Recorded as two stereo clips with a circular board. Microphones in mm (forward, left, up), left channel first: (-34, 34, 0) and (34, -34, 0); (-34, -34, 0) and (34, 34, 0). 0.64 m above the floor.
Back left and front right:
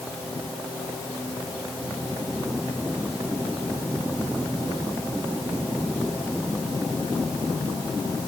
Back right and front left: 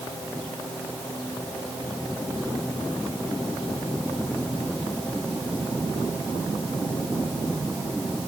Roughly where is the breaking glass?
No breaking glass in this recording.